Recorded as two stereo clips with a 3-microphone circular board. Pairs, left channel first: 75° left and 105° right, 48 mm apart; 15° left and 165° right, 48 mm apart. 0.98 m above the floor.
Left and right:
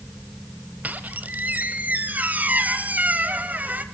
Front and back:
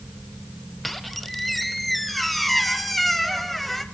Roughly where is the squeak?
Right.